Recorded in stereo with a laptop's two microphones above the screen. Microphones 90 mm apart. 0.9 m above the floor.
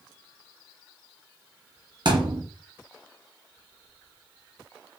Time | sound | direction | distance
2.0 | a thud | 55° right (ahead or behind) | 1.4 m